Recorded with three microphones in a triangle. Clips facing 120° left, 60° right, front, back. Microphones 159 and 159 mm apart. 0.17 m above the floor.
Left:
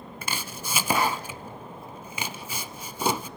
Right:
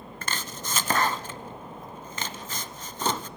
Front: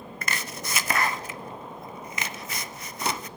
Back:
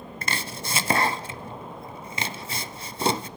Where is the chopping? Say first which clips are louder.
Even, back 2 dB; 170° right, 0.5 m.